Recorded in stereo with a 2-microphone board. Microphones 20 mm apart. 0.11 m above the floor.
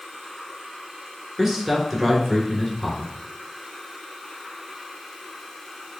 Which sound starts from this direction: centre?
A man speaking, at 1.4 s.